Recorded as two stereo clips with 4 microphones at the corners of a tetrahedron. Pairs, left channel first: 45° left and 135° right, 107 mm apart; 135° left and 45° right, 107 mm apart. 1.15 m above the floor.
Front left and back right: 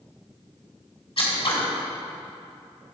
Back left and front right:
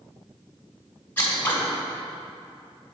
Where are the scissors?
65° left, 1.5 m.